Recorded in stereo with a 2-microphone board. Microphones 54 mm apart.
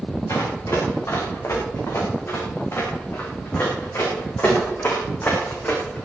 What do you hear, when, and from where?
0.3 s running footsteps: 65° left (ahead or behind), 7.5 m; by 6.0 s 35° left (ahead or behind), 5 m